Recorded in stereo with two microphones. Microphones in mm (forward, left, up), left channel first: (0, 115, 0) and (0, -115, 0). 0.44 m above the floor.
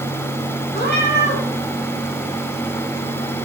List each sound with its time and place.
0.7 s a cat meowing: 50° left (ahead or behind), 1.9 m